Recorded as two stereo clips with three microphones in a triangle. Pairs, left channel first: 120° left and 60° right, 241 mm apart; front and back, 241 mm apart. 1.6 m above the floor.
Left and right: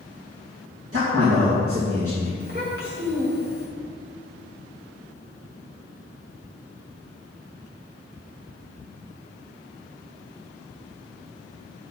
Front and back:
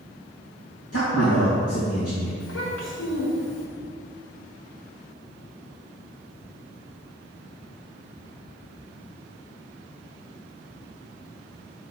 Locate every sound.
0.9 s a man speaking: 25° right, 2.5 m
2.4 s a child speaking: 10° right, 3.5 m